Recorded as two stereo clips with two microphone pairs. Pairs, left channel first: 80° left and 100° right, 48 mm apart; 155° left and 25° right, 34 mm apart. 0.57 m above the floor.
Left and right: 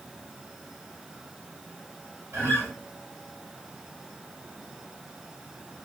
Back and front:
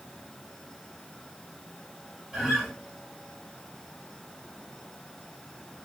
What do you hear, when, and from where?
2.3 s a guitar: 110° right, 2.5 m